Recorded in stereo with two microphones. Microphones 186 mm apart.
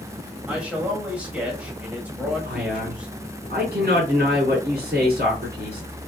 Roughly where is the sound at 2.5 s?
Right.